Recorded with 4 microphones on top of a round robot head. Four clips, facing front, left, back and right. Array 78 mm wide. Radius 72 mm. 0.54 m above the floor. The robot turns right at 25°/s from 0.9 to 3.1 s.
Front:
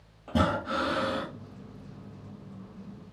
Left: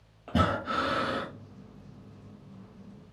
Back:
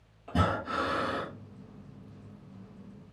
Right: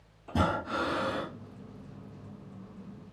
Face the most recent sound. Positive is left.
turn(degrees=125)